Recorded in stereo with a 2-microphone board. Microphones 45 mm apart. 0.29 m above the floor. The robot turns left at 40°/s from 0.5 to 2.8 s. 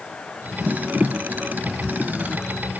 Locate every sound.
Only background noise.